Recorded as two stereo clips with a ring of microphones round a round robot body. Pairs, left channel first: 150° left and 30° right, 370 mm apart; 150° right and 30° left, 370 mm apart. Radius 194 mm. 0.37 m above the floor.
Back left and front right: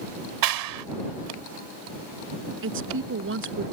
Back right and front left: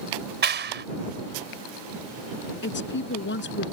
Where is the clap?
30° right.